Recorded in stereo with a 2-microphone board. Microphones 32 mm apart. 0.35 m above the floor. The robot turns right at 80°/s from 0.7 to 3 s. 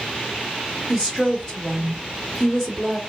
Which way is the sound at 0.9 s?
40° left.